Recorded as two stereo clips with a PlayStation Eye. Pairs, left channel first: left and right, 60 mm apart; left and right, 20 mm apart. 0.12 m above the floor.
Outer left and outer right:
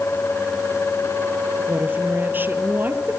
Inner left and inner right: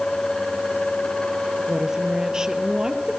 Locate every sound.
1.7 s a woman speaking: 35° right (ahead or behind), 2.5 m